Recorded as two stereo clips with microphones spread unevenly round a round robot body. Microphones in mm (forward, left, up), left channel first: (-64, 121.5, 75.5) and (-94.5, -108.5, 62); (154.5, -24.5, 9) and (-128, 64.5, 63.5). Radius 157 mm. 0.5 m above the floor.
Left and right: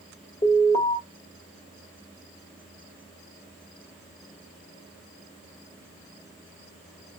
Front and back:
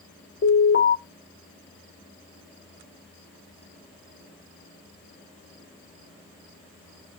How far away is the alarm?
About 1.3 m.